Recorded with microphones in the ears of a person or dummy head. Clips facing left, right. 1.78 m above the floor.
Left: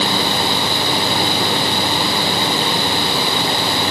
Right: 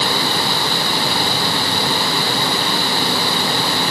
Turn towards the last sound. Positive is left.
No sound to turn to.